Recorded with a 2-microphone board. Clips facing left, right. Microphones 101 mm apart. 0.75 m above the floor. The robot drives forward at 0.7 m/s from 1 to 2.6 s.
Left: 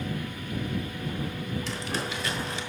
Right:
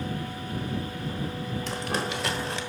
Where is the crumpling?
50° right (ahead or behind), 1.0 m; by 2.6 s 70° right (ahead or behind), 0.8 m.